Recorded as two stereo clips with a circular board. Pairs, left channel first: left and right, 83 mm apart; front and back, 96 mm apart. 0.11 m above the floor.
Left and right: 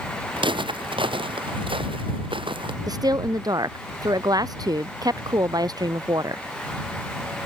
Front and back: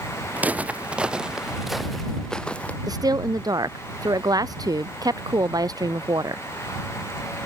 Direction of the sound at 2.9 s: 130° right.